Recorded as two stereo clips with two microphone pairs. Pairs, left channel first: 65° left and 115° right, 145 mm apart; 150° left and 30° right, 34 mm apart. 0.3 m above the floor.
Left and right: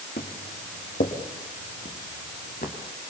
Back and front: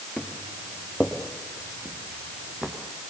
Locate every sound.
0.2 s footsteps: 80° left, 5 m; by 2.7 s 45° left, 6 m